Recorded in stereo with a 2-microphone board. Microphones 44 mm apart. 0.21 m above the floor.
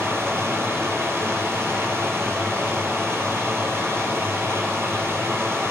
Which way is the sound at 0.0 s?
75° right (ahead or behind).